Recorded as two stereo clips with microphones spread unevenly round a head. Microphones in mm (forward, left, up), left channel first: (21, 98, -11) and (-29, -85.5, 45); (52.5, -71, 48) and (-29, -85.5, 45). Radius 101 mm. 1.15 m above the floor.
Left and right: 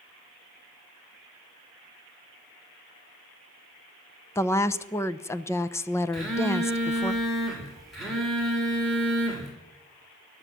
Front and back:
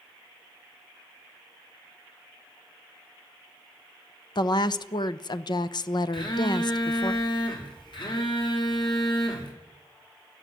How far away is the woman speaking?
About 0.9 m.